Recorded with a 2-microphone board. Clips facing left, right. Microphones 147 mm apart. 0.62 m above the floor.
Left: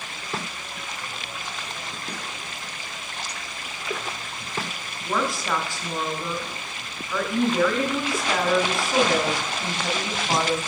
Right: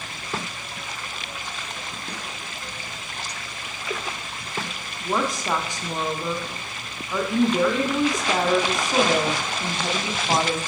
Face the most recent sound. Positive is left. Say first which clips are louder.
# right 1 dB
turn(degrees=-20)  # may be behind; listen again after turning